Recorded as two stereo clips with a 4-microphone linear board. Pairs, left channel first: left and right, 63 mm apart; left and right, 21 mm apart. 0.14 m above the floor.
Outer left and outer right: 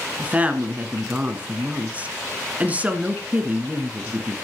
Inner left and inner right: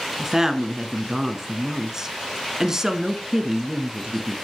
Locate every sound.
0.2 s a woman speaking: 20° right (ahead or behind), 1.4 m